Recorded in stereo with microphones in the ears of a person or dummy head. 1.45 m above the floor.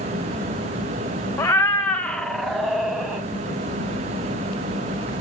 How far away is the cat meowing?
About 0.6 m.